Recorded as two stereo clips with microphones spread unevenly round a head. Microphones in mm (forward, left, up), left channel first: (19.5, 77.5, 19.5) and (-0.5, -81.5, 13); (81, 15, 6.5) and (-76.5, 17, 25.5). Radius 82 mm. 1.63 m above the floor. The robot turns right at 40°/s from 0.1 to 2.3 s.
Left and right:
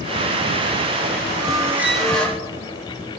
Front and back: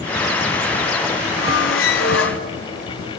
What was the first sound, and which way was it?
A squeak, 35° right.